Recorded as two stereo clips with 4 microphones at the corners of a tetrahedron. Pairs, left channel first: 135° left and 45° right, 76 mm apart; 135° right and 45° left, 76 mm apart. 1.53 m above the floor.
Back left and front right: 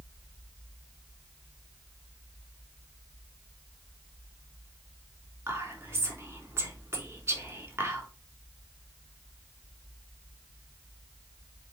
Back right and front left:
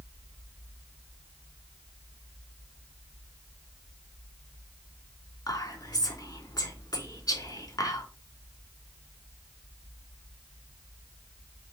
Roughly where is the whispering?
Right.